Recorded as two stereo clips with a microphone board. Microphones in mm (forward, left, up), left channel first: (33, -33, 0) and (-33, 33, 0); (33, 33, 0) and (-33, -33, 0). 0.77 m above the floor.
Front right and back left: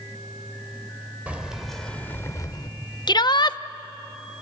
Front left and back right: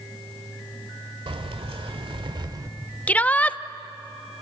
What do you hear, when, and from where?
1.3 s keys jangling: 150° right, 1.8 m; by 2.7 s 85° right, 1.5 m
3.1 s a shout: 25° right, 0.7 m